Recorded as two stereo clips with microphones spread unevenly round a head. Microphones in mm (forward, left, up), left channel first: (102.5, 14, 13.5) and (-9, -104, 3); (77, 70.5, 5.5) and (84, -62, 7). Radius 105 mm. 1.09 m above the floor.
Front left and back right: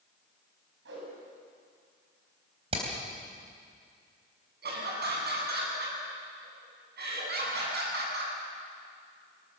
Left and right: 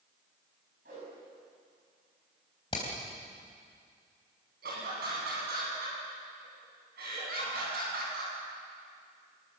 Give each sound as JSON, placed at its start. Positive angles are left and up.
{"t": 0.8, "sound": "a whoosh", "azimuth_deg": -135, "distance_m": 7.0}
{"t": 2.7, "sound": "hammering", "azimuth_deg": 160, "distance_m": 3.5}
{"t": 4.6, "sound": "laughter", "azimuth_deg": -115, "distance_m": 9.0}